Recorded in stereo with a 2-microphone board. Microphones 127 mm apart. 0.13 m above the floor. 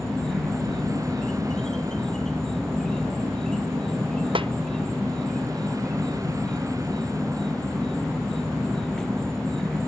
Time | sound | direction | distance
0.0 | an insect | 5° left (ahead or behind) | ?
4.3 | a snare drum | 40° right (ahead or behind) | ?